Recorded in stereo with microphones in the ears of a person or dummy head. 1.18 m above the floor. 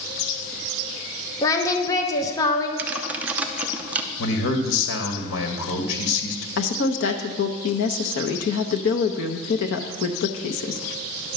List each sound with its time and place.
1.4 s singing: 15° left (ahead or behind), 0.9 m
2.8 s typing on a keyboard: 15° right (ahead or behind), 0.7 m
4.2 s a man speaking: 85° left, 1.8 m
6.6 s a woman speaking: 75° left (ahead or behind), 0.8 m